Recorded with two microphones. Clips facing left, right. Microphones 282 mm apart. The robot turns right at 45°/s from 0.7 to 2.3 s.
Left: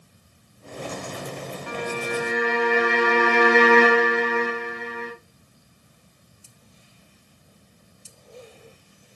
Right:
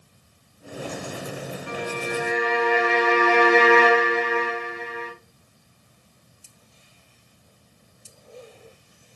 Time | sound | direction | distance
1.7 | a violin | 75° left (ahead or behind) | 5 m